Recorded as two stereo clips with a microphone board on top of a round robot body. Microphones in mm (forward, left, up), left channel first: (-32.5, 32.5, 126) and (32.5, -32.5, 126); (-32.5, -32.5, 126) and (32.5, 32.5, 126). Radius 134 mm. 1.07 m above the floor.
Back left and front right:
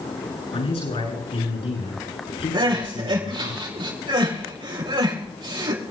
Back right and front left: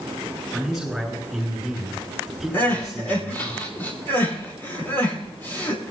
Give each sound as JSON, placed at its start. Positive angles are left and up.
{"t": 0.5, "sound": "a man speaking", "azimuth_deg": 135, "distance_m": 8.5}
{"t": 2.5, "sound": "crying", "azimuth_deg": -70, "distance_m": 6.5}